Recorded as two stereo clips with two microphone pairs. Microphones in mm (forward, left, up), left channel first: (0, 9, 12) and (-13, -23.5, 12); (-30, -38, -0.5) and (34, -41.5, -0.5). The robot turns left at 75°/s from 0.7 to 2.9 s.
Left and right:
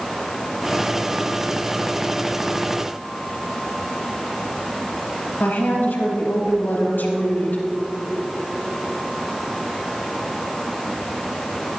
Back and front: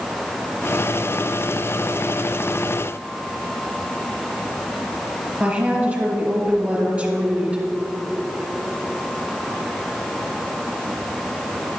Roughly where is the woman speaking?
Ahead left.